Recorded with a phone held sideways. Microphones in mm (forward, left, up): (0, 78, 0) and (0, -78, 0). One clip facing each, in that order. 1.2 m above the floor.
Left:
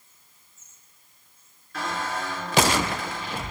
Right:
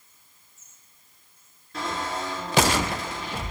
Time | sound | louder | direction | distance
1.7 | a squeak | even | 25° right (ahead or behind) | 1.8 m